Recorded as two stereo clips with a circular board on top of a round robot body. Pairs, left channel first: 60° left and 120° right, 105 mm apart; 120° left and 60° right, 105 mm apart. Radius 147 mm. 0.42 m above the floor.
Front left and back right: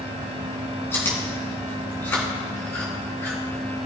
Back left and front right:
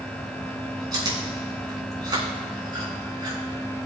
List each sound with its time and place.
0.9 s chewing: 10° right, 3.5 m